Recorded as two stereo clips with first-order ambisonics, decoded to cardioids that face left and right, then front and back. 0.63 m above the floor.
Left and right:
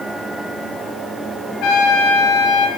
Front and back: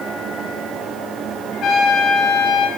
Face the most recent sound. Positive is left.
turn(degrees=60)